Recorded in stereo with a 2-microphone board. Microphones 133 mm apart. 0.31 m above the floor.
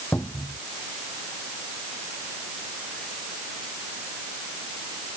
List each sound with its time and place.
0.1 s a cupboard door: 15° left (ahead or behind)